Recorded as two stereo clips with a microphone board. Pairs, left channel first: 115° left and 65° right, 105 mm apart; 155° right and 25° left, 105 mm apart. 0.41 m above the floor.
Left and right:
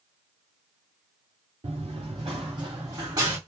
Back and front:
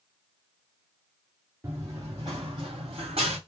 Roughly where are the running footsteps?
Ahead right.